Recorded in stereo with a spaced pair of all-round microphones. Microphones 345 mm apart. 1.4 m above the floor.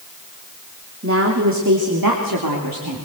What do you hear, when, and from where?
1.0 s a woman speaking: 40° right (ahead or behind), 3 m; by 3.0 s 85° right, 3.5 m